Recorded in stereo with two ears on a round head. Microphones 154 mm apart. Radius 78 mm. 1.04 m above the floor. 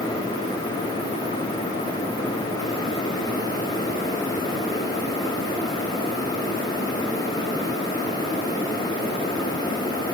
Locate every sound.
Only background noise.